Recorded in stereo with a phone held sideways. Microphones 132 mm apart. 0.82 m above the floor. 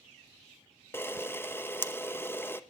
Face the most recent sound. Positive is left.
turn(degrees=20)  # may be behind; listen again after turning